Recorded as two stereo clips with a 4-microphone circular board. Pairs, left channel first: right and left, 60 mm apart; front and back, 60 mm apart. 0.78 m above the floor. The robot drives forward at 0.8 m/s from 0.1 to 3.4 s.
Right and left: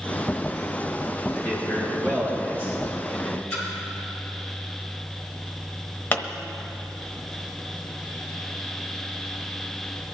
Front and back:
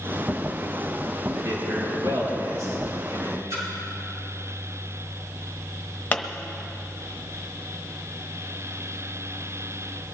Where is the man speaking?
145° right, 5.5 m; by 3.4 s 150° right, 7 m.